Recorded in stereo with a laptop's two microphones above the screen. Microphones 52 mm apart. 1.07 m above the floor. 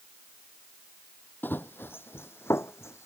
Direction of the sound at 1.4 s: 40° left (ahead or behind).